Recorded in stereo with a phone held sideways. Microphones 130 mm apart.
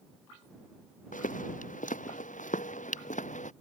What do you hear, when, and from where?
1.1 s footsteps: 80° left; by 3.5 s 70° left (ahead or behind)